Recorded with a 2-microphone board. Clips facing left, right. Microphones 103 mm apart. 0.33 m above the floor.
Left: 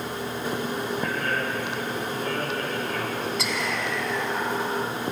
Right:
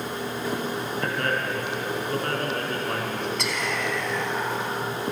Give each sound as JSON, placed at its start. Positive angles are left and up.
{"t": 1.0, "sound": "a man speaking", "side_deg": -75, "distance_m": 5.0}
{"t": 3.4, "sound": "whispering", "side_deg": 0, "distance_m": 3.0}